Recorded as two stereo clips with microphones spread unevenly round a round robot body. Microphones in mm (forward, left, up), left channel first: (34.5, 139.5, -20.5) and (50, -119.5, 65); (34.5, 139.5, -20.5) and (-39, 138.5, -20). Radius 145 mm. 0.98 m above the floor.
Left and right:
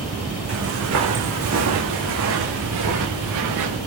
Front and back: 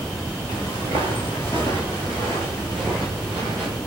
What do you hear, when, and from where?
0.5 s footsteps: 60° right, 4 m; by 3.8 s 95° right, 5.5 m